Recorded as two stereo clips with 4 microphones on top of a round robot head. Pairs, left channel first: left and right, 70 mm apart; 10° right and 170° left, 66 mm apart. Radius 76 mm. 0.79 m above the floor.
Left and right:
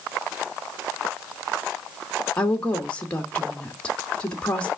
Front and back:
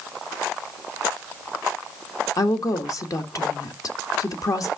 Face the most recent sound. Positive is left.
turn(degrees=20)